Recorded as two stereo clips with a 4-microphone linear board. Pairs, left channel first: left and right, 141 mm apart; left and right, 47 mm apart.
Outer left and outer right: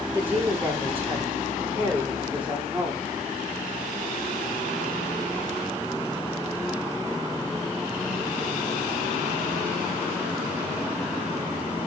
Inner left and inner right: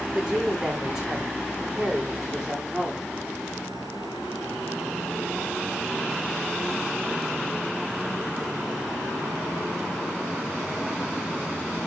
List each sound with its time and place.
0.1 s a woman speaking: 15° right (ahead or behind), 7 m; by 3.1 s 10° right (ahead or behind), 8.5 m